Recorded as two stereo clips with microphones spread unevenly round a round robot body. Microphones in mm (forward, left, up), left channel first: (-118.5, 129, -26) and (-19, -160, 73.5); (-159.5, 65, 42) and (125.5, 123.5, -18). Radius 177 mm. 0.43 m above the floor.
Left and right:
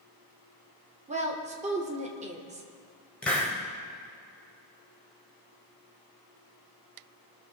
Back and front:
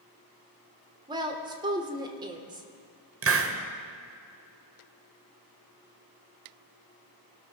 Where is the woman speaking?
10° left, 1.2 m.